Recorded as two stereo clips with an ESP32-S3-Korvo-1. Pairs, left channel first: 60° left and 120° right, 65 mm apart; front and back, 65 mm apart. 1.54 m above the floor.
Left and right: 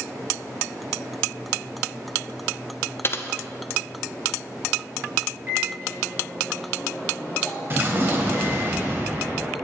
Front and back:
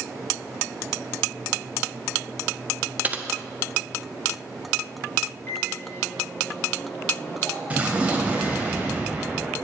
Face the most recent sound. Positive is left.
turn(degrees=-130)